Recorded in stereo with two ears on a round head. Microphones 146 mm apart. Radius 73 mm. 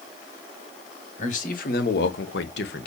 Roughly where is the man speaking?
Left.